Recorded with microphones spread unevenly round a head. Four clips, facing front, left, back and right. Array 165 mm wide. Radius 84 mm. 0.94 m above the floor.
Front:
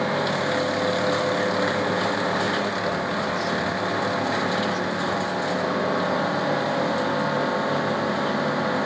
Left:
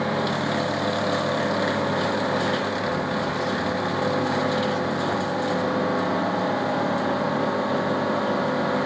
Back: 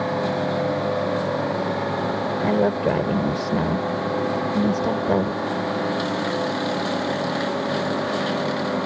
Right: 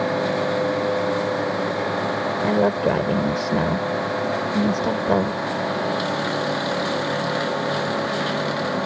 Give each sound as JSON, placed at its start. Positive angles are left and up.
{"t": 2.4, "sound": "a woman speaking", "azimuth_deg": -135}